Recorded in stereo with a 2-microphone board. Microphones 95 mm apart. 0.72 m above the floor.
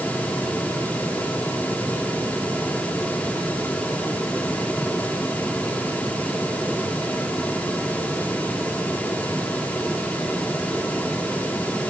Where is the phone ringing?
I don't hear a phone ringing.